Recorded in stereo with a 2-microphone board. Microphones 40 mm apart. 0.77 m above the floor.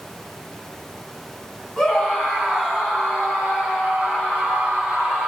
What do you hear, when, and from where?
1.8 s a scream: 5° left (ahead or behind), 8 m; by 5.3 s 15° right (ahead or behind), 7.5 m